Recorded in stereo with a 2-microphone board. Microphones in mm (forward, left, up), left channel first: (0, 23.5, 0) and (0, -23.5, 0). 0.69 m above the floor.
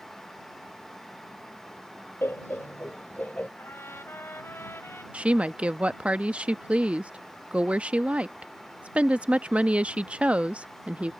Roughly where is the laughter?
Left.